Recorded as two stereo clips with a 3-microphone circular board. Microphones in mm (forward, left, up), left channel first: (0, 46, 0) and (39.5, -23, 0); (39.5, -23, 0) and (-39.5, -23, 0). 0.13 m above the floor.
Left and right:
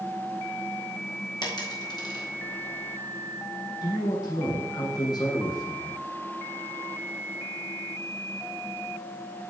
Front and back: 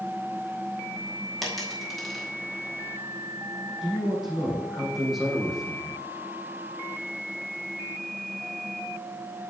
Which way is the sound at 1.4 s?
90° left.